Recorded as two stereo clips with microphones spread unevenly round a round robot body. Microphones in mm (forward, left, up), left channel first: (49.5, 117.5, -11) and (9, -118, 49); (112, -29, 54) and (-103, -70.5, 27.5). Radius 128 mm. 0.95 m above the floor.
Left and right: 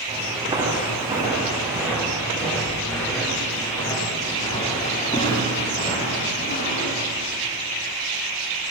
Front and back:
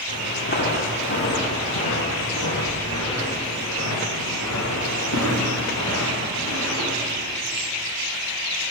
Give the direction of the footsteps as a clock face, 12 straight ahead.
1 o'clock.